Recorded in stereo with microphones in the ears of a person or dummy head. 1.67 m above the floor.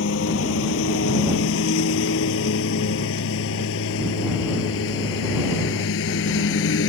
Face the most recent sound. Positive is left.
turn(degrees=80)